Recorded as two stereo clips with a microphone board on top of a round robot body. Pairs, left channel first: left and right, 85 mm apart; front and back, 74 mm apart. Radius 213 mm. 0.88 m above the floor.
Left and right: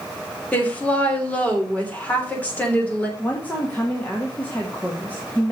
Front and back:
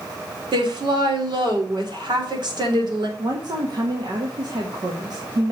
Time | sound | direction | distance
0.5 | a woman speaking | 165° left | 3.5 m
3.2 | a woman speaking | 160° left | 2 m